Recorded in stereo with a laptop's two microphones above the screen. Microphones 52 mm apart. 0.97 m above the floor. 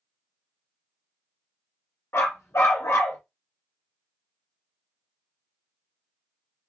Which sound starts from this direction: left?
A dog barking, at 2.1 s.